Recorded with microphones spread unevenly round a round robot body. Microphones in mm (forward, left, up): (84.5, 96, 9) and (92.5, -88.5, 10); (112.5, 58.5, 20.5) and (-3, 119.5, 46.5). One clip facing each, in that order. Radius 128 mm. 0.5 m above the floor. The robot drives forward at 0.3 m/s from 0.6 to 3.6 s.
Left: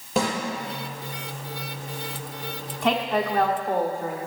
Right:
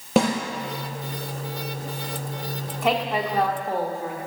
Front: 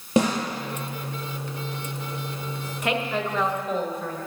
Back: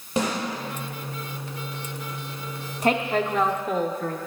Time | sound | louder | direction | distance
0.2 | a snare drum | right 5 dB, front 5 dB | 60° right | 4 m
2.8 | a woman speaking | even, back 4 dB | 170° right | 0.7 m